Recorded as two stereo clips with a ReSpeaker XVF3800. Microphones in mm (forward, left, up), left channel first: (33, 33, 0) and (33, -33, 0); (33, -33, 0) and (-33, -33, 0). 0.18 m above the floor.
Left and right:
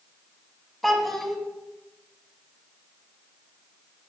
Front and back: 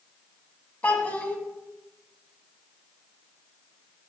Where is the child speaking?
5° left, 0.6 m.